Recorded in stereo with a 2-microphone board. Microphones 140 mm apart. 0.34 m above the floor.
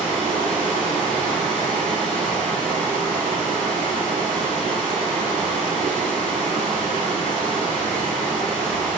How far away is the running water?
About 0.9 m.